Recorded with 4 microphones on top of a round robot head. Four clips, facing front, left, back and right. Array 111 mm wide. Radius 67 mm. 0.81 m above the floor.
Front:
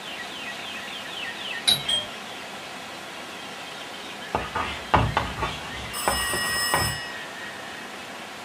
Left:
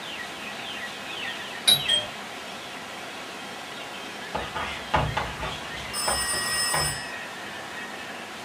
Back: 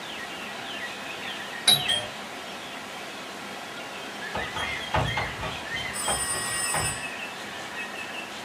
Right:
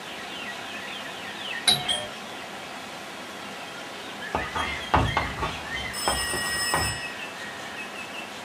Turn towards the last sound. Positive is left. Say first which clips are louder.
# even, front 7 dB
turn(degrees=25)